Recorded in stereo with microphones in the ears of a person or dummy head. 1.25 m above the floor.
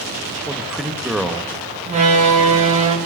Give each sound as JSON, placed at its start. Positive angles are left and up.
{"t": 0.5, "sound": "a man speaking", "side_deg": -5, "distance_m": 1.3}
{"t": 1.9, "sound": "a door slam", "side_deg": -35, "distance_m": 1.6}